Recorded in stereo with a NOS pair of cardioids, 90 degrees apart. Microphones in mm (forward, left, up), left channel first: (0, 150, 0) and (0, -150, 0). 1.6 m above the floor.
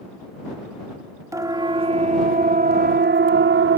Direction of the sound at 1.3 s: 10° right.